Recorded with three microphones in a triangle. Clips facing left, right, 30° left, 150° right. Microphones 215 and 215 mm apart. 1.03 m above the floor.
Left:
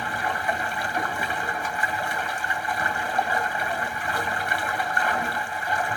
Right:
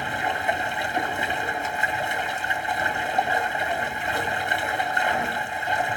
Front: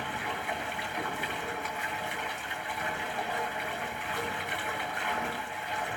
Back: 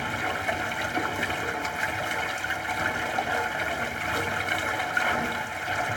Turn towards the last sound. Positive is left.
turn(degrees=-160)